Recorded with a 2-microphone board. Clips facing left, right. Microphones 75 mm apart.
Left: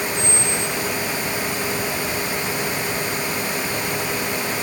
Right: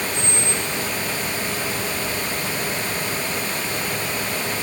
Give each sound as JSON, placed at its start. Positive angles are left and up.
{"t": 0.1, "sound": "a squeak", "side_deg": 45, "distance_m": 2.0}